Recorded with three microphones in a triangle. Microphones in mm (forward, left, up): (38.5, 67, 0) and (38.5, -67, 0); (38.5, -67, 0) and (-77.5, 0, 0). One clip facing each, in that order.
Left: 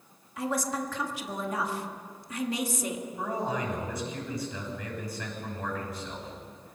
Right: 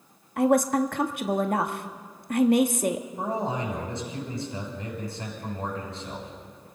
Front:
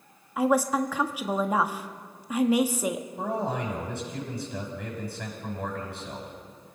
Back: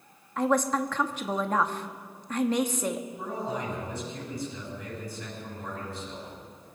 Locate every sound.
0.4 s a woman speaking: 110° right, 1.2 m
3.2 s a man speaking: 30° right, 7 m